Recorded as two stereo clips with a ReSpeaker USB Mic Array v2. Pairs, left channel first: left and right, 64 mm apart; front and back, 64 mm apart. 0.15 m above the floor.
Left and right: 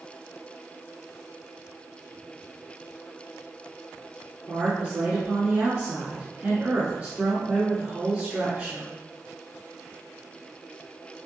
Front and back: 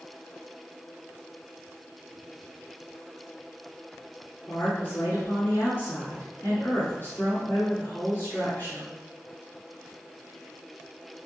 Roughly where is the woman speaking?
Ahead right.